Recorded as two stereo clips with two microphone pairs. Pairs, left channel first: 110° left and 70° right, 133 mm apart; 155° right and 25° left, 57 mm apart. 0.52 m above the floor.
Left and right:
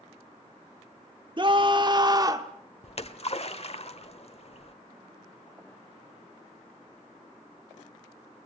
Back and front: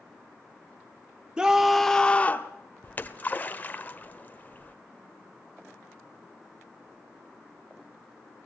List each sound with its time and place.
1.4 s a scream: 45° right, 1.4 m; by 2.5 s 125° right, 1.4 m
2.8 s a splash: 150° left, 1.2 m